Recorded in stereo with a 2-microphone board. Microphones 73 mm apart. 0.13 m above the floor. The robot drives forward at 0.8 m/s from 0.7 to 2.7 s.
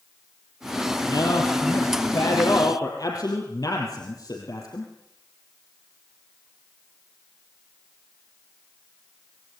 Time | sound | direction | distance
1.1 | a man speaking | 65° left (ahead or behind) | 4.5 m